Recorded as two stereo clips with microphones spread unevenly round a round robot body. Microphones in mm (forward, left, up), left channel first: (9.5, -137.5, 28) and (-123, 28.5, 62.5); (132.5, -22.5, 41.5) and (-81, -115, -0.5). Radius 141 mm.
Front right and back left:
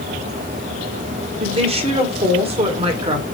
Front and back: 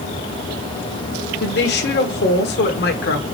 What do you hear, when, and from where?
1.4 s a woman speaking: 65° left, 1.6 m